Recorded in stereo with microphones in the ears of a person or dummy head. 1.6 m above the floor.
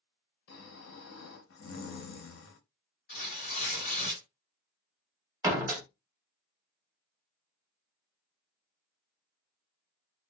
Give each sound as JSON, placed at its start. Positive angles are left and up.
{"t": 0.5, "sound": "snoring", "side_deg": 75, "distance_m": 0.7}
{"t": 3.1, "sound": "tearing paper", "side_deg": 45, "distance_m": 2.0}
{"t": 5.4, "sound": "a door slam", "side_deg": -20, "distance_m": 0.7}